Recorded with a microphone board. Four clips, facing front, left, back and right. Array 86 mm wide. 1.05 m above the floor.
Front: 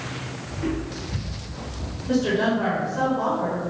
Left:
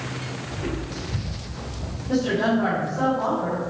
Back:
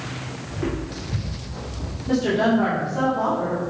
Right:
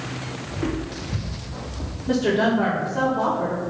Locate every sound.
0.5 s footsteps: 130° right, 2 m; by 2.0 s 100° right, 3 m
2.1 s a woman speaking: 115° right, 2.5 m